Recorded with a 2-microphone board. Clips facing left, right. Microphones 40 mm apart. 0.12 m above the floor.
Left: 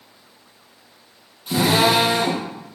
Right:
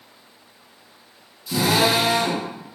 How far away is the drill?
About 5 m.